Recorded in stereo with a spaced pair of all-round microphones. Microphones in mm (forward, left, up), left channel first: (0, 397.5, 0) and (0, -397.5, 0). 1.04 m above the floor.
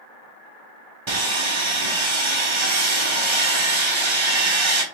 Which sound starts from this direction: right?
Sawing, at 1.1 s.